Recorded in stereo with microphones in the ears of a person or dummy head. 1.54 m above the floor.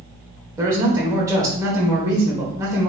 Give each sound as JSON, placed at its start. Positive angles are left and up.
{"t": 0.6, "sound": "a man speaking", "side_deg": -15, "distance_m": 1.0}